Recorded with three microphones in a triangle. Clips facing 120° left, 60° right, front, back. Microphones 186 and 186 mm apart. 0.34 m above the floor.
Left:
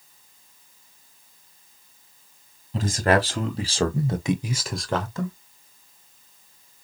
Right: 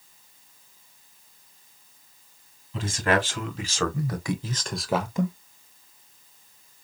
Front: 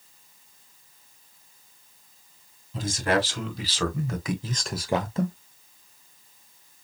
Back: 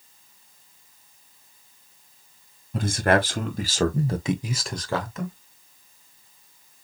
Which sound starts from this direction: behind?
A man speaking, at 2.7 s.